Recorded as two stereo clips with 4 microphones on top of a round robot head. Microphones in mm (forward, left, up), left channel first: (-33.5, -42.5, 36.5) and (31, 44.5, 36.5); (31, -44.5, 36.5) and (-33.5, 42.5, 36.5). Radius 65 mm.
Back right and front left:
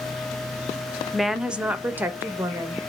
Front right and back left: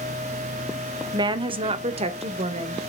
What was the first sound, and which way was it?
A woman speaking, 145° left.